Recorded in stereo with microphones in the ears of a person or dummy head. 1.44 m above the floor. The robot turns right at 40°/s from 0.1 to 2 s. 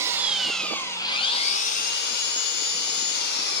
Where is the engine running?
15° right, 1.1 m; by 3.6 s 60° left, 1.1 m.